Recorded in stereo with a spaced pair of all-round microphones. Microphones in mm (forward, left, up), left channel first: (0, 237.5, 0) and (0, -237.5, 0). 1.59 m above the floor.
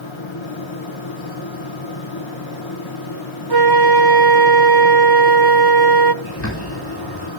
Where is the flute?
55° right (ahead or behind), 0.8 m.